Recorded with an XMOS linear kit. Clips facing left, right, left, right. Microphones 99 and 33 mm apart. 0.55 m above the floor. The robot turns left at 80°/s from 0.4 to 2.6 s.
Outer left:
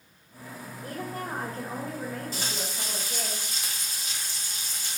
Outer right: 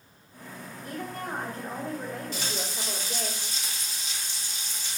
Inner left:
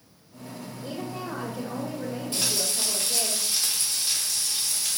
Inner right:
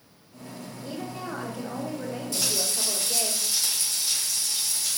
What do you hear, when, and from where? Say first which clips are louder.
0.8 s a woman speaking: outer left 1 dB, inner left 1 dB; 105° left, 1.7 m; by 3.3 s 35° right, 1.7 m
2.3 s frying: outer right 1 dB, even; 40° left (ahead or behind), 1.5 m; by 5.0 s 50° left (ahead or behind), 1.5 m